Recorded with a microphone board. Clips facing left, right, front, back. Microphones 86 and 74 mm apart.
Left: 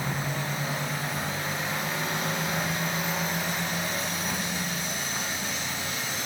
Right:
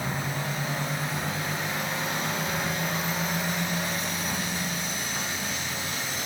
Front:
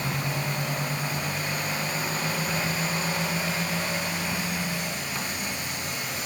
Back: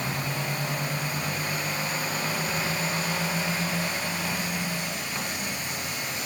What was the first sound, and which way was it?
Only background noise.